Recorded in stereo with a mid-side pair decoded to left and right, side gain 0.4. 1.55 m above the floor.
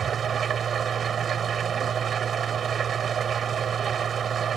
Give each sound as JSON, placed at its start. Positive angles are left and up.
{"t": 0.0, "sound": "an engine running", "azimuth_deg": -55}